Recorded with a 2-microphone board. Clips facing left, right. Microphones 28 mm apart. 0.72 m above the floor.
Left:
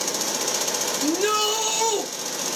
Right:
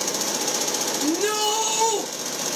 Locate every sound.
1.0 s a shout: 10° left (ahead or behind), 1.3 m